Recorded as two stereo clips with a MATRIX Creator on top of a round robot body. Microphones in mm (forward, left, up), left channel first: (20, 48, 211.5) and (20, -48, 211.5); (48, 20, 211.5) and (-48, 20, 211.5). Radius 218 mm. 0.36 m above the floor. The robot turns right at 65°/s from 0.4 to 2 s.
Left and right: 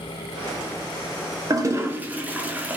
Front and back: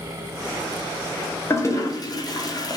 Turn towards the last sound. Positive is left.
turn(degrees=-20)